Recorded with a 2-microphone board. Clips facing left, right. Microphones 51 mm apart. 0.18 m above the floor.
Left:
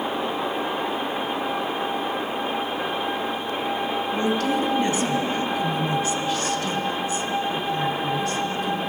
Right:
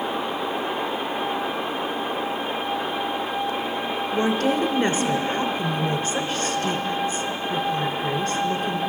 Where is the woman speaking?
30° right (ahead or behind), 1.3 m.